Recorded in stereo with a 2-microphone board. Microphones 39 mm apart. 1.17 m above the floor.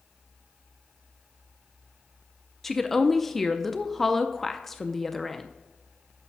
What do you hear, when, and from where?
2.6 s a woman speaking: 10° left (ahead or behind), 0.5 m